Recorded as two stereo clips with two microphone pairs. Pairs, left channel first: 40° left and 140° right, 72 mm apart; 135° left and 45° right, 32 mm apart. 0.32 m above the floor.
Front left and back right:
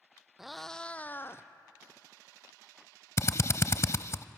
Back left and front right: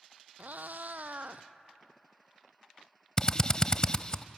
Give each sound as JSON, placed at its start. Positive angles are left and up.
{"t": 0.4, "sound": "a cat meowing", "azimuth_deg": -55, "distance_m": 0.8}
{"t": 3.2, "sound": "a drill", "azimuth_deg": 80, "distance_m": 0.5}